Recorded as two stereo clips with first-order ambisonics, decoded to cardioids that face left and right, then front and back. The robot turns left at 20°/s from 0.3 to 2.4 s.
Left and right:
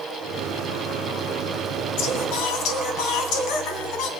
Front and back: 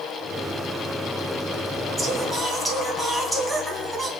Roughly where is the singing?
Left.